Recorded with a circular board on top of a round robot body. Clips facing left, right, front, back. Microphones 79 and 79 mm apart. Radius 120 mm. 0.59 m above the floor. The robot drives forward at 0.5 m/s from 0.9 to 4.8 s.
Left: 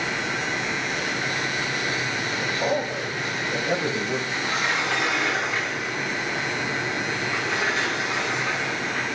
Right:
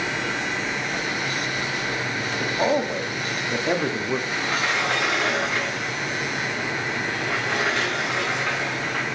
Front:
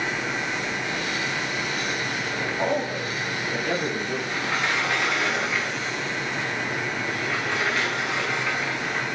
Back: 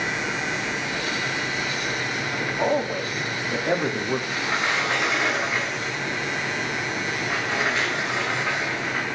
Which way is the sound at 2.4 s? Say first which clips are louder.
Right 4 dB, back 2 dB; 100° right.